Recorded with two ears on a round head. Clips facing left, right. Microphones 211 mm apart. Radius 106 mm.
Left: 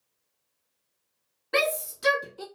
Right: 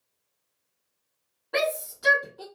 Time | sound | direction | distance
1.5 | a shout | 35° left (ahead or behind) | 1.3 m